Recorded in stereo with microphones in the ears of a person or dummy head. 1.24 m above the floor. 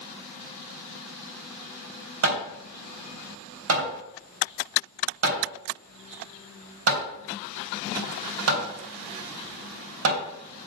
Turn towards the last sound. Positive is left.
turn(degrees=-75)  # may be behind; listen again after turning